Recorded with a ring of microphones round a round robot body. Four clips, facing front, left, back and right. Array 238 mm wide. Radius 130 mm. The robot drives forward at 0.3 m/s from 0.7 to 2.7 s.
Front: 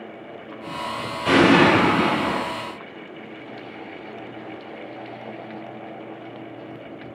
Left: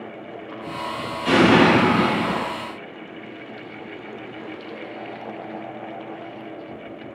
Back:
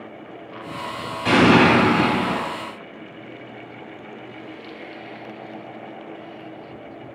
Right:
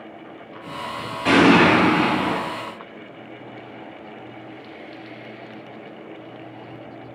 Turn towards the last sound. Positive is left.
turn(degrees=-130)